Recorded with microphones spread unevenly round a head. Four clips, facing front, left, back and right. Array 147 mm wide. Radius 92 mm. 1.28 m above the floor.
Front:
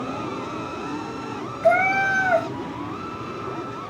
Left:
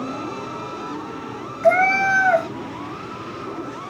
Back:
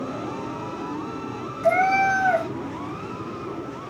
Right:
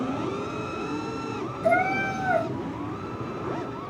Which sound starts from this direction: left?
A cat meowing, at 1.6 s.